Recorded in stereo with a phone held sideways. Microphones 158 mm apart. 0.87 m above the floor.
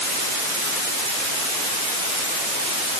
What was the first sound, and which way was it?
Only background noise.